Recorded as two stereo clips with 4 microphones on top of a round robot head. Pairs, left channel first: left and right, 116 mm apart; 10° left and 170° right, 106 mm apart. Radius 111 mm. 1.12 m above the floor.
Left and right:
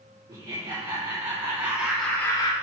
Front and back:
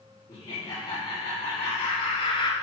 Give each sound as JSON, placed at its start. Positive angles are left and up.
{"t": 0.3, "sound": "laughter", "azimuth_deg": -35, "distance_m": 3.5}